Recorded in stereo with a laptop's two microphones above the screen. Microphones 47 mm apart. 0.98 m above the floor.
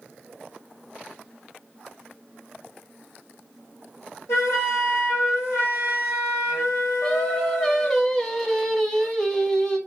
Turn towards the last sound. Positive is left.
turn(degrees=10)  # may be behind; listen again after turning